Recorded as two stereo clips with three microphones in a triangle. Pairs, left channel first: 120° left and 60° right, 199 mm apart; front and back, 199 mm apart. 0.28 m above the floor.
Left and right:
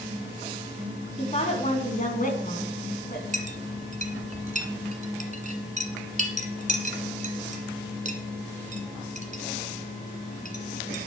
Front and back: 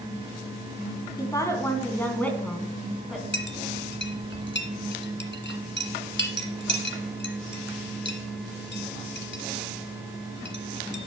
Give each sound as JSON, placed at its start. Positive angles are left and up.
{"t": 1.2, "sound": "a woman speaking", "azimuth_deg": 70, "distance_m": 3.0}
{"t": 3.3, "sound": "a clink", "azimuth_deg": -15, "distance_m": 1.7}